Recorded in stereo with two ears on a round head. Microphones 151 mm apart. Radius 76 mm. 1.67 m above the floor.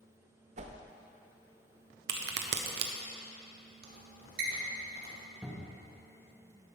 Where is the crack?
75° right (ahead or behind), 1.0 m.